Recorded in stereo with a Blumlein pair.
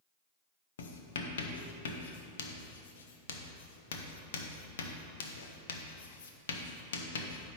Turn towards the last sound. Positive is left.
turn(degrees=60)